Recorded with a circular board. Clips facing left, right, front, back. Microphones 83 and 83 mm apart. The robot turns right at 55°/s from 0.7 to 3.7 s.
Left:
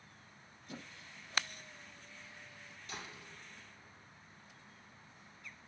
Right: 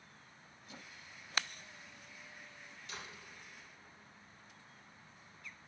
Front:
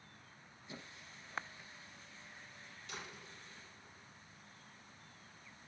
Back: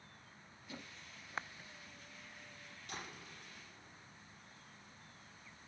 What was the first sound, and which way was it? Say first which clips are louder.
A squeak: left 4 dB, even; 65° left.